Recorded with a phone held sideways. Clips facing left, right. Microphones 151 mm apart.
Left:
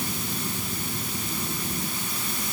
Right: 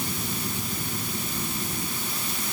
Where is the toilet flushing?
No toilet flushing in this recording.